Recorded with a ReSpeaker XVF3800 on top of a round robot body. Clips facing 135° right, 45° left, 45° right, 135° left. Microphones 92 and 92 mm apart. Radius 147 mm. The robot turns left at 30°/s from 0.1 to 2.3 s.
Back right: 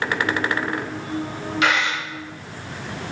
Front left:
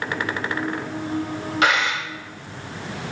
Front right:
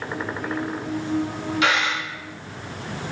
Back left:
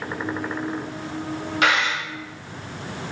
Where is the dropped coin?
95° left, 1.6 m; by 2.0 s 85° left, 1.6 m.